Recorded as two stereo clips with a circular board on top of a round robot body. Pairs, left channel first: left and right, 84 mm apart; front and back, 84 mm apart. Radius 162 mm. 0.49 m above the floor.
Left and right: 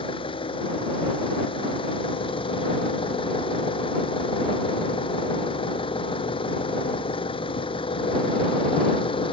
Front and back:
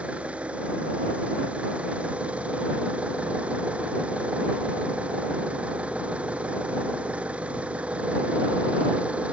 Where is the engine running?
105° left.